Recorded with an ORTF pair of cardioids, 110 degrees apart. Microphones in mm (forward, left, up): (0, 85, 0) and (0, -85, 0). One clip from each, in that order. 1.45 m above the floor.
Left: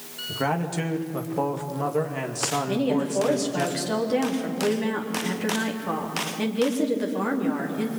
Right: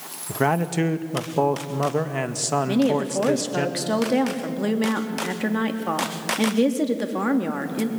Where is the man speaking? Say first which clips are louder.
Right 4 dB; 30° right, 2 m.